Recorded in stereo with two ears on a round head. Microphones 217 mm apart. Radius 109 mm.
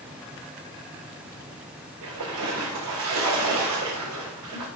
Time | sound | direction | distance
2.0 | a splash | 80° right | 5 m